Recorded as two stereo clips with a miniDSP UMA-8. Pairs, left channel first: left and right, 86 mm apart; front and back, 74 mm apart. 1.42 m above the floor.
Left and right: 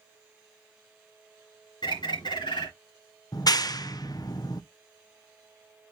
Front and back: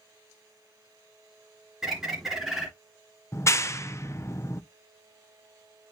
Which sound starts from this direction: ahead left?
A clap, at 3.3 s.